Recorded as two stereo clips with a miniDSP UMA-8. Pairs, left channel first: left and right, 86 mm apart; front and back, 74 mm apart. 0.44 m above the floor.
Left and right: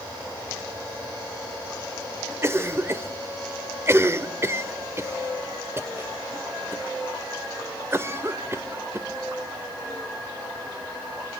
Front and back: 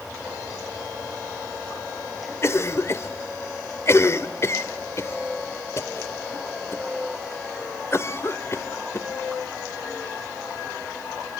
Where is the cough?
40° right, 1.3 m.